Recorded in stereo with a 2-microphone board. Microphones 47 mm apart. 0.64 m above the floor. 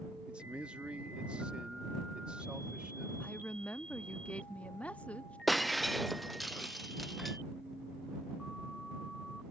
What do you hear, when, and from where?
0.3 s a man speaking: 20° right (ahead or behind)
3.2 s a woman speaking: 30° left (ahead or behind)
5.5 s breaking glass: centre (ahead or behind)